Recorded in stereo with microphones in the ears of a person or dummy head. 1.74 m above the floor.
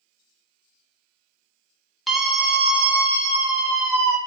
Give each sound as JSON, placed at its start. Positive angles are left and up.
{"t": 2.1, "sound": "a scream", "side_deg": 0, "distance_m": 0.9}